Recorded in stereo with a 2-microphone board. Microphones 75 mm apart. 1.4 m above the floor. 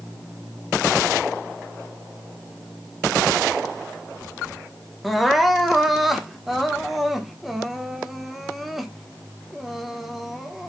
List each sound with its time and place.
5.0 s crying: 5° right (ahead or behind), 1.1 m